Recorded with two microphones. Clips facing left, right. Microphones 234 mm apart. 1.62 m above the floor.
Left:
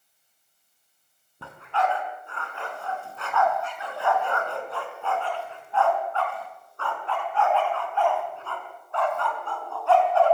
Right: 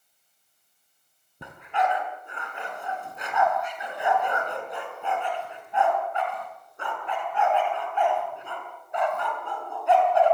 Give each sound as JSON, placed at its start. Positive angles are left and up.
{"t": 1.4, "sound": "a dog barking", "side_deg": -15, "distance_m": 5.5}